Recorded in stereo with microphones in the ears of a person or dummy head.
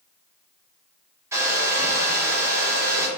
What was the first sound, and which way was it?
A hair dryer, 15° right (ahead or behind).